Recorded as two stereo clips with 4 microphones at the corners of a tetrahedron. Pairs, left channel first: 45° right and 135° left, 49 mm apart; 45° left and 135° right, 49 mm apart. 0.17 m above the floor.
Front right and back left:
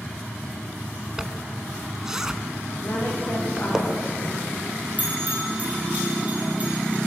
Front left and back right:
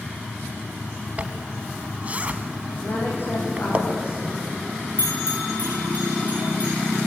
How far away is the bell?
About 5 m.